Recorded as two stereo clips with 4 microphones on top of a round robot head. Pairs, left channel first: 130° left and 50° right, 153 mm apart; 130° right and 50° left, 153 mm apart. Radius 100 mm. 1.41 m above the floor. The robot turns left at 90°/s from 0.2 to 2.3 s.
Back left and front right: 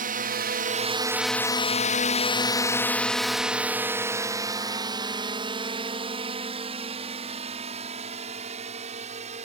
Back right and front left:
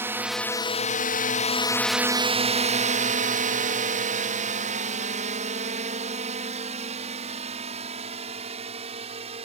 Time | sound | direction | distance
0.0 | a drone | 25° right | ?